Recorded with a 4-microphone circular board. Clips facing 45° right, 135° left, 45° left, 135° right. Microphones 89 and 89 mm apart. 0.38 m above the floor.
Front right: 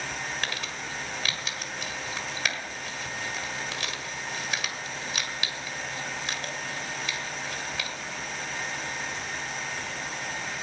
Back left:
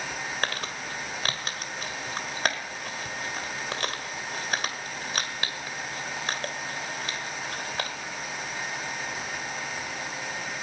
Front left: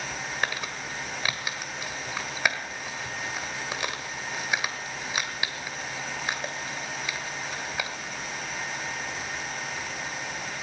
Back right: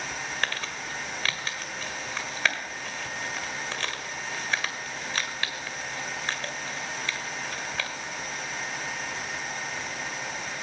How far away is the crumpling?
About 1.7 m.